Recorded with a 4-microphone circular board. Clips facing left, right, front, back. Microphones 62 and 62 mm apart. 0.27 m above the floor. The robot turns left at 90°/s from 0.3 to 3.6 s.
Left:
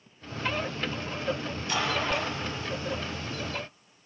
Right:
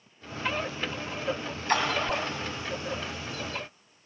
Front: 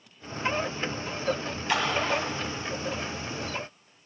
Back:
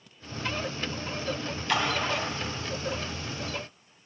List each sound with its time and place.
1.7 s a splash: 70° right, 1.9 m; by 2.2 s 115° right, 1.9 m